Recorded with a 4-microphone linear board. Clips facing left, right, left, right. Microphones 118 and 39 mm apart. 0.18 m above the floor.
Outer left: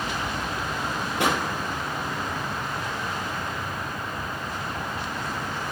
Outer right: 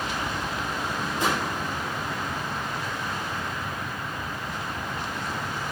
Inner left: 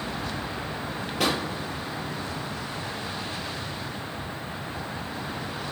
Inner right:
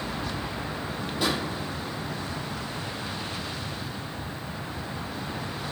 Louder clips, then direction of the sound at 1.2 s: Outer left 2 dB, inner left 2 dB; 75° left (ahead or behind).